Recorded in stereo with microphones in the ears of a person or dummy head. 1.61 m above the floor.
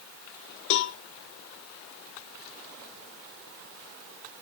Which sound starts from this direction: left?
A cowbell, at 0.7 s.